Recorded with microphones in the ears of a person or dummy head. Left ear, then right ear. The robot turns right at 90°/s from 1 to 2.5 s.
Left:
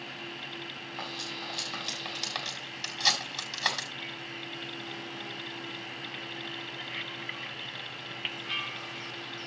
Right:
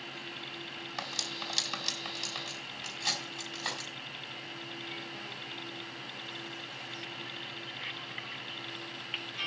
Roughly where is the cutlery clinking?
Right.